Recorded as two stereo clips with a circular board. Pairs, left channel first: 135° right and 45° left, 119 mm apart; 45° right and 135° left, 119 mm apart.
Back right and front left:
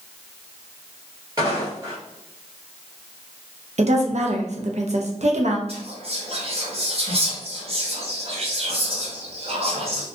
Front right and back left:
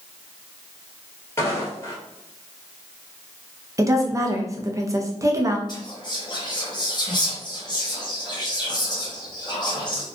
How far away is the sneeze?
I don't hear a sneeze.